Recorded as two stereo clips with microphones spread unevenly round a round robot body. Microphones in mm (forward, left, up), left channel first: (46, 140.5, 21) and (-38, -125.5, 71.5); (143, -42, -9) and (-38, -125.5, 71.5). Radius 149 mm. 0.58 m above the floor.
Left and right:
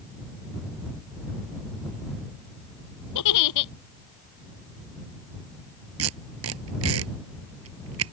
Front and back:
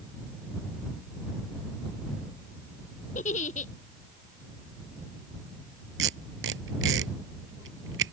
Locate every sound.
3.1 s a giggle: 100° left
6.0 s tape being pulled: 145° right